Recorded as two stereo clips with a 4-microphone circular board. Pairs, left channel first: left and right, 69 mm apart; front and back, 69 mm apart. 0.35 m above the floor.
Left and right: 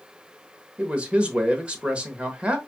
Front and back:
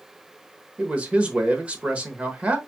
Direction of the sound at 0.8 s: 135° right.